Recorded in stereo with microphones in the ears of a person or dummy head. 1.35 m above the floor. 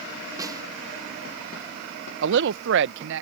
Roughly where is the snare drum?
Right.